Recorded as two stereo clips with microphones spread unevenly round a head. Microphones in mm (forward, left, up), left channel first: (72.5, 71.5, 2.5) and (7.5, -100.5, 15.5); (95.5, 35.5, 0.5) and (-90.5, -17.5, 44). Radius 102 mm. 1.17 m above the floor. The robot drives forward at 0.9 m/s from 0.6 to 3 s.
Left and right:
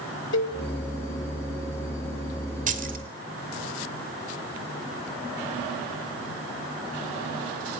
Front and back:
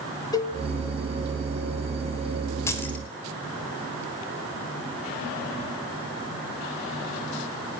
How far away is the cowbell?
About 1.8 m.